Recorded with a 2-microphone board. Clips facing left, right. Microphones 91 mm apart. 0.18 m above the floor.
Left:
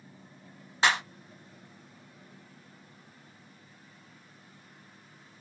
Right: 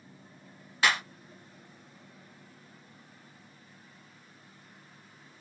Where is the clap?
25° left (ahead or behind), 0.9 m.